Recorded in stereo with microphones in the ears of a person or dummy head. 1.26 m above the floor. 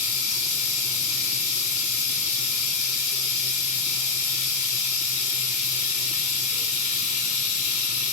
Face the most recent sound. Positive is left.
turn(degrees=30)  # may be behind; listen again after turning